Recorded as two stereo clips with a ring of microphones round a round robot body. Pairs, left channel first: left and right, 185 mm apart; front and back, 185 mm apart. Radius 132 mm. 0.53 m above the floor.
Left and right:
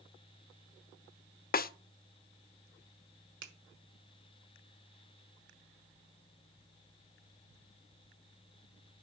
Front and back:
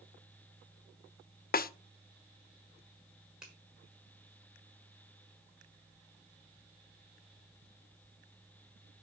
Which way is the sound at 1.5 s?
45° left.